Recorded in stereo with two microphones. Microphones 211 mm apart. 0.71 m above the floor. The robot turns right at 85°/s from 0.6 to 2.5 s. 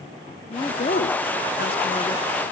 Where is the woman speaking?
25° left, 1.1 m; by 2.2 s 165° left, 1.1 m.